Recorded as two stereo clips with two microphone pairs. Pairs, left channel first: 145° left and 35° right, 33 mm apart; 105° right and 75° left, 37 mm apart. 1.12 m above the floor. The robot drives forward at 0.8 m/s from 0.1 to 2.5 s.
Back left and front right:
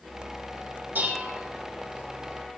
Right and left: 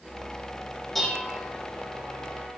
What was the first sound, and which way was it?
Dishes clattering, 20° right.